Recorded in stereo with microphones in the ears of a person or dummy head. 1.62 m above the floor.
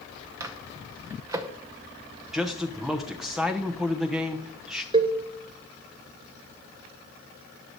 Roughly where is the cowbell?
Right.